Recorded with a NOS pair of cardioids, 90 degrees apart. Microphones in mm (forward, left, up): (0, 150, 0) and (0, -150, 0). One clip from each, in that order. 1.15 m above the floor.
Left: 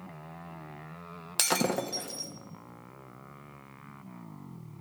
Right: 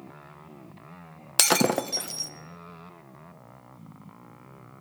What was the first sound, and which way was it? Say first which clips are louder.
Breaking glass: right 6 dB; 35° right.